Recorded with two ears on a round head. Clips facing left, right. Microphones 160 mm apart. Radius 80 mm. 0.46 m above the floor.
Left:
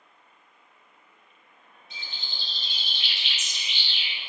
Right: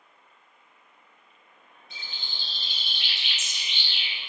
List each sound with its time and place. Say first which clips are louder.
1.9 s a bird: left 1 dB; 45° right (ahead or behind), 1.5 m